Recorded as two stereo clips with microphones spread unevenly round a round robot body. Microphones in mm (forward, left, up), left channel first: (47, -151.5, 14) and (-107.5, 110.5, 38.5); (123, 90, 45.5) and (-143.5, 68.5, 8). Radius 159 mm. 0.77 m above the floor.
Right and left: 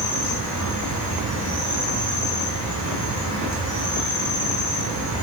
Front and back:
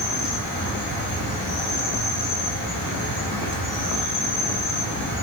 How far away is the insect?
About 1.9 m.